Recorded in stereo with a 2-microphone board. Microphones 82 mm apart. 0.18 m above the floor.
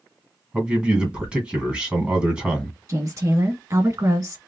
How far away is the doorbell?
I don't hear a doorbell.